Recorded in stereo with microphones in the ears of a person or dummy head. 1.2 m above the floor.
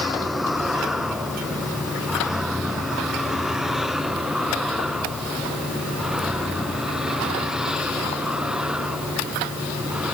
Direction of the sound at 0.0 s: 5° left (ahead or behind).